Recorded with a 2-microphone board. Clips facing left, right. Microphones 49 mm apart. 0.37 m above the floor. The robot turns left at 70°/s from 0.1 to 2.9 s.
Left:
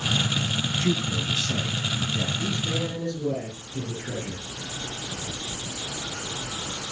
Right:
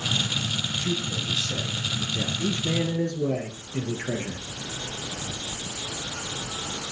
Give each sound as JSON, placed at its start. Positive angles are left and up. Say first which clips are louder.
{"t": 0.8, "sound": "a man speaking", "louder": "left 3 dB", "azimuth_deg": 110, "distance_m": 2.5}
{"t": 2.4, "sound": "a man speaking", "louder": "right 2 dB", "azimuth_deg": -20, "distance_m": 5.0}